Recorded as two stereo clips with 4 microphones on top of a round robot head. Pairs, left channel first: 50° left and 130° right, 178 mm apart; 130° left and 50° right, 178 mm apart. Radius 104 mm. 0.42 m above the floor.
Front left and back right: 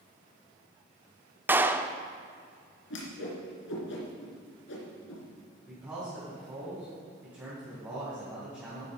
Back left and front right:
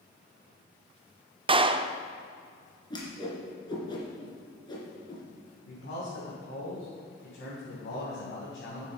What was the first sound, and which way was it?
A clap, 65° right.